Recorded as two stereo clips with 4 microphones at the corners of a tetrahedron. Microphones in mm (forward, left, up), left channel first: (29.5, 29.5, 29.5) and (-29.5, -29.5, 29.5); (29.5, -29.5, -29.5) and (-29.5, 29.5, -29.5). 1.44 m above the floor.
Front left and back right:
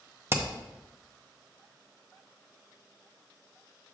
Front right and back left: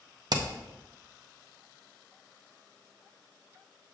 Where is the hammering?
165° left, 0.7 m.